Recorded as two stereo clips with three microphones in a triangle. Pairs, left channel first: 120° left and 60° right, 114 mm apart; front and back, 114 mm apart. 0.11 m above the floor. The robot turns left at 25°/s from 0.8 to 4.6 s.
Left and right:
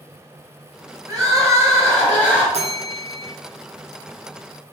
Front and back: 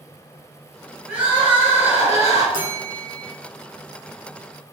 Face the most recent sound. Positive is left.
turn(degrees=-115)